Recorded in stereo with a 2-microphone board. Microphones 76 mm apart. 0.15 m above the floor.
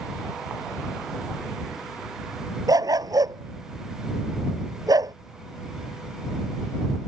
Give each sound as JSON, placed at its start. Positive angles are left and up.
{"t": 2.7, "sound": "a dog barking", "side_deg": -60}